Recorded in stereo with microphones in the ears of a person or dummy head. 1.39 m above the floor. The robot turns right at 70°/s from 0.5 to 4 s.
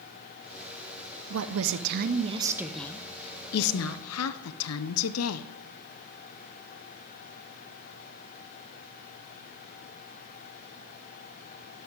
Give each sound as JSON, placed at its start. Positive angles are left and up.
{"t": 1.3, "sound": "a woman speaking", "azimuth_deg": -105, "distance_m": 0.6}